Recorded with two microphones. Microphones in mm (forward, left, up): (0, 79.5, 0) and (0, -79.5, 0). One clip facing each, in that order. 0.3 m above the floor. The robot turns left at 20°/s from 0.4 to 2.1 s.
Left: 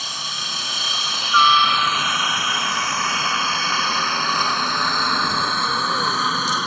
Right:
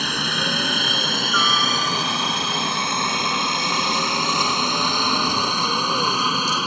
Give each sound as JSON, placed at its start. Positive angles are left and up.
{"t": 0.0, "sound": "a helicopter", "side_deg": -65}